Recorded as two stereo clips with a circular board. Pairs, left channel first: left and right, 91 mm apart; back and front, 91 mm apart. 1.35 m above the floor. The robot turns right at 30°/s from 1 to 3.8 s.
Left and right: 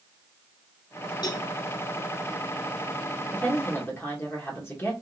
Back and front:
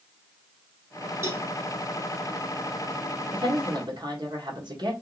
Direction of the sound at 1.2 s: 55° left.